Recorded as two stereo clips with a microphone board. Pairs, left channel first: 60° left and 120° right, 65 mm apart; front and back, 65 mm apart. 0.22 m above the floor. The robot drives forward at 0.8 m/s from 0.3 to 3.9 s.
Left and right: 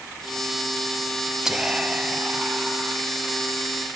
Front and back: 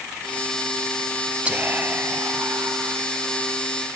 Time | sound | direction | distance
1.4 | whispering | 175° left | 1.0 m